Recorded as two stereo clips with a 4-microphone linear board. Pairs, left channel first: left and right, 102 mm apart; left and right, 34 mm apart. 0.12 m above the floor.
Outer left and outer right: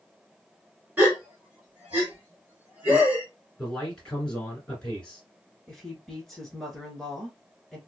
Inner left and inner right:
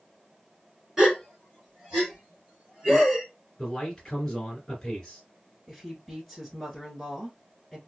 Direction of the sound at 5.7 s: 5° left (ahead or behind).